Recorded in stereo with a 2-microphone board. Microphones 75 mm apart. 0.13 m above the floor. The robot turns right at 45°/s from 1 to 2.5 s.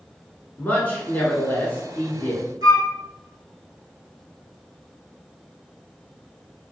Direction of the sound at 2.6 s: 55° right (ahead or behind).